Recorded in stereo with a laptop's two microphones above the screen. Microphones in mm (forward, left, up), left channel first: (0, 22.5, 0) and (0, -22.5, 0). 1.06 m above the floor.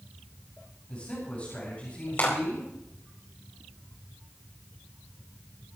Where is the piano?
I don't hear a piano.